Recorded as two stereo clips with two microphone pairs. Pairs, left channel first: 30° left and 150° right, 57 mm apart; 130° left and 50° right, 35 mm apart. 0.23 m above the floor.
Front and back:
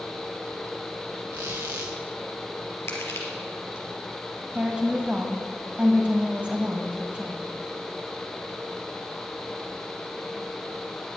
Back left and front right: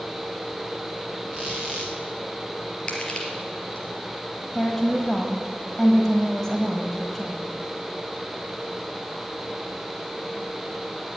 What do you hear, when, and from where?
1.3 s a squeak: 140° right, 3 m
2.9 s crushing: 65° left, 3.5 m
4.5 s a woman speaking: 165° right, 1.6 m